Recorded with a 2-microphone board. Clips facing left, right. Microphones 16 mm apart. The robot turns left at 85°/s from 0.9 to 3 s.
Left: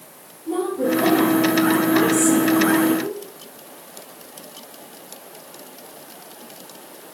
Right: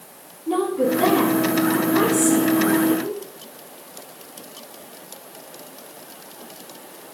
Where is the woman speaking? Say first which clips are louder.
Right 1 dB; 65° right (ahead or behind), 3.5 m; by 3.2 s 65° left (ahead or behind), 3.5 m.